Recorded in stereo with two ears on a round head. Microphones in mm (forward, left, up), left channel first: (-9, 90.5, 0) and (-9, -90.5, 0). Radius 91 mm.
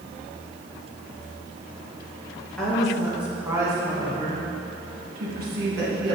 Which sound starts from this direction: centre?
A woman speaking, at 2.6 s.